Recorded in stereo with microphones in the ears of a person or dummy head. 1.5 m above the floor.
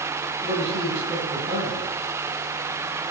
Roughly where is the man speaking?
Right.